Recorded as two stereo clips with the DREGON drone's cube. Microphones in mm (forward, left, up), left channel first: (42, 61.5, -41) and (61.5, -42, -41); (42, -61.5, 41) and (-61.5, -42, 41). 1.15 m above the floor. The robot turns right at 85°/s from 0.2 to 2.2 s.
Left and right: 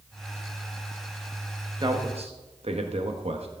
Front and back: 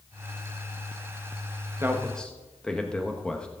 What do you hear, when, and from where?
1.8 s a man speaking: 125° right, 1.1 m; by 3.5 s 95° right, 1.1 m